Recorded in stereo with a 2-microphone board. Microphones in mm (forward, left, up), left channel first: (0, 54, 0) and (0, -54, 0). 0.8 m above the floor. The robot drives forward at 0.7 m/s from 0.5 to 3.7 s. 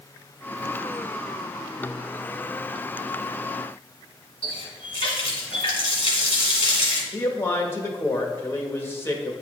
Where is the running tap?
55° left (ahead or behind), 1.7 m.